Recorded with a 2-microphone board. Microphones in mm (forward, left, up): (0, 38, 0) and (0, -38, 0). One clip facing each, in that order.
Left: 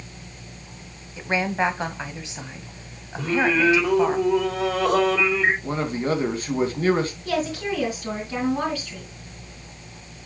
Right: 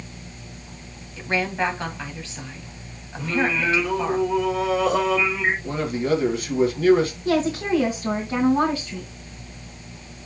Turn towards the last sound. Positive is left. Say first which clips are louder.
# right 4 dB
turn(degrees=-25)  # may be behind; listen again after turning